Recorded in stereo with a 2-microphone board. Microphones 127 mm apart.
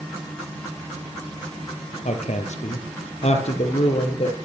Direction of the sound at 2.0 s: 70° left (ahead or behind).